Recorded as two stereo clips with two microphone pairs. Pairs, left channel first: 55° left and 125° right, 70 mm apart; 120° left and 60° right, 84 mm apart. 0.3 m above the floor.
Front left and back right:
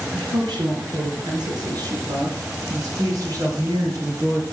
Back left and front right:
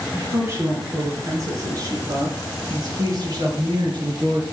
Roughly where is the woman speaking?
Behind right.